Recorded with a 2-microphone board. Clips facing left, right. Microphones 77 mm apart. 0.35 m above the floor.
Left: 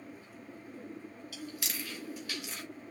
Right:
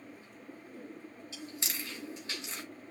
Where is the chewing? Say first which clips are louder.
Left 1 dB; 20° right (ahead or behind), 3 m.